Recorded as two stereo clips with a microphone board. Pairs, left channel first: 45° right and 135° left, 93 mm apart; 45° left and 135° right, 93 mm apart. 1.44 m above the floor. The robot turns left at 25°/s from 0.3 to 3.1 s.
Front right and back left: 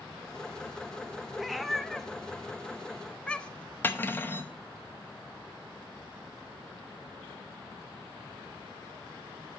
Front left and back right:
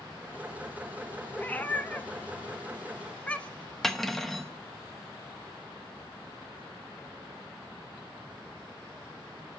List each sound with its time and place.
1.4 s a cat meowing: 50° left, 0.6 m; by 3.8 s 5° left, 0.6 m
3.8 s cutlery clinking: 35° right, 0.7 m